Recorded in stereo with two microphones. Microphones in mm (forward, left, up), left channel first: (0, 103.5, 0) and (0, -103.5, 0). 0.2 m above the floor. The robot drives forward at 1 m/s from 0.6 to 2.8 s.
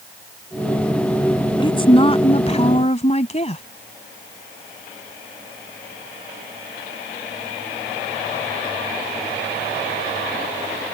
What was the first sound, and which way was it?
A woman speaking, 25° left (ahead or behind).